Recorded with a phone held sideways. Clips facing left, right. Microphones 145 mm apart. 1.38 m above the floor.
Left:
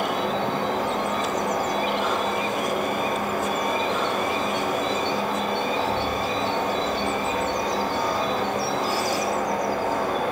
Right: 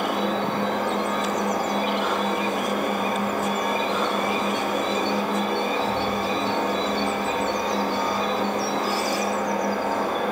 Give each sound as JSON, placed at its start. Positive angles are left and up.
{"t": 0.0, "sound": "a fan", "side_deg": -55, "distance_m": 1.5}